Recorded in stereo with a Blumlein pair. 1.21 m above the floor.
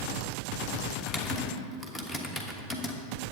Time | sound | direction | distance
1.0 | typing on a keyboard | 10° left | 1.2 m